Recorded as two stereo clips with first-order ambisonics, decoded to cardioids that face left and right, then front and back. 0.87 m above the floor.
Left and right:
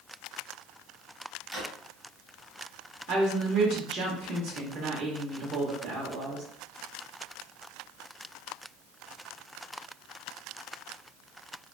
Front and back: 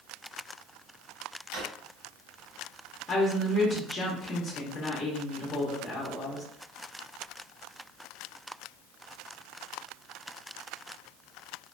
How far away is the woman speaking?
About 0.7 m.